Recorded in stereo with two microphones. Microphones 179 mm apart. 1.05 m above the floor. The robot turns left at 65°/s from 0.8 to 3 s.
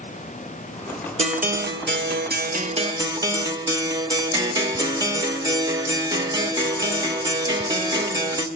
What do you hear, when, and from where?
1.2 s a guitar: 40° right, 1.0 m; by 8.5 s 155° right, 1.0 m